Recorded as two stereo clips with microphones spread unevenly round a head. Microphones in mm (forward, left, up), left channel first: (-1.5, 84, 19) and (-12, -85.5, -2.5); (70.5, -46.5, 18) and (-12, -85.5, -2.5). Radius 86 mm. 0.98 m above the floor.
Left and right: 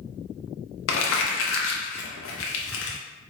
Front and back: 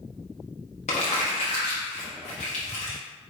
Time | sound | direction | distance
0.9 | crumpling | 75° left | 0.7 m